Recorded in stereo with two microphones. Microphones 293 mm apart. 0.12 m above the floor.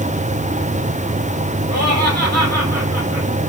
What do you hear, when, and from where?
1.7 s laughter: 60° right (ahead or behind), 4.5 m